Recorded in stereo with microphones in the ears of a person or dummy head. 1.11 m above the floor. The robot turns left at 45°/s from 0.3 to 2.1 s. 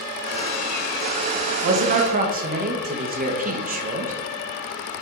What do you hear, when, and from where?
1.6 s a man speaking: 65° right (ahead or behind), 0.9 m; by 4.1 s 45° right (ahead or behind), 0.9 m